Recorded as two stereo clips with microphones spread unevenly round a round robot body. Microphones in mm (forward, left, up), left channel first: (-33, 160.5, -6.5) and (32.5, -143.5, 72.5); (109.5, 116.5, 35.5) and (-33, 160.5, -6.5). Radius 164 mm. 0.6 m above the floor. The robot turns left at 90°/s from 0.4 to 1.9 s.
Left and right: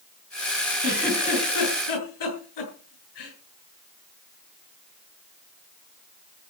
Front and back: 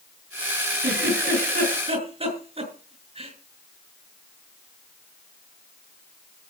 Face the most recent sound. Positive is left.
turn(degrees=115)